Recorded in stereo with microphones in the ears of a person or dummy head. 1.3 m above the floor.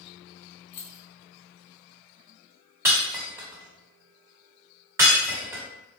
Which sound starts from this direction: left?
Keys jangling, at 0.7 s.